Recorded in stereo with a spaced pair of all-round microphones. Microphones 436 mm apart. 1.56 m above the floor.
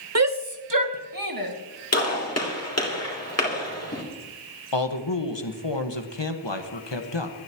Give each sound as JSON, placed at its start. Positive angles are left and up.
{"t": 0.1, "sound": "a shout", "side_deg": -35, "distance_m": 1.0}
{"t": 1.9, "sound": "a gunshot", "side_deg": 35, "distance_m": 3.0}
{"t": 4.7, "sound": "a man speaking", "side_deg": 75, "distance_m": 1.6}